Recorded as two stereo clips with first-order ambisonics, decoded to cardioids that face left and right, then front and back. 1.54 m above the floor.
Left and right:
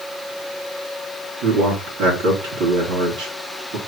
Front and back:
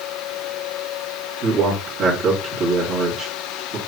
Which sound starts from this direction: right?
A man speaking, at 1.4 s.